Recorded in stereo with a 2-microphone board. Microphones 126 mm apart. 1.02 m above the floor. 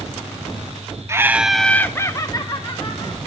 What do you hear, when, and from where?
1.1 s laughter: 20° right (ahead or behind), 0.6 m; by 3.2 s 40° left (ahead or behind), 1.4 m